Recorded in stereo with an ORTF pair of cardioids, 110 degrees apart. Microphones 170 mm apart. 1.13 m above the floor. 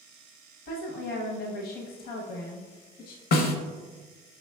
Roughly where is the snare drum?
Ahead left.